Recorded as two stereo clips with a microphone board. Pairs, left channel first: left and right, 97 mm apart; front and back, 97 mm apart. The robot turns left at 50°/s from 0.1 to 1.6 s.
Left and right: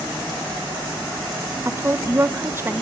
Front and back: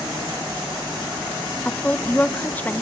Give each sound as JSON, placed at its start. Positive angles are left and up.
{"t": 1.6, "sound": "a woman speaking", "azimuth_deg": -55, "distance_m": 0.6}